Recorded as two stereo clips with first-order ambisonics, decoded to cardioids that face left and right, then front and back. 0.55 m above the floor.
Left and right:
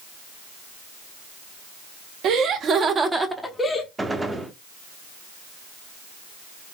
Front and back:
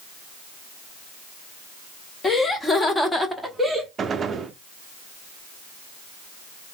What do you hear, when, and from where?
2.2 s laughter: 65° right, 1.0 m; by 3.9 s 100° left, 0.8 m
4.0 s a gunshot: 160° right, 0.5 m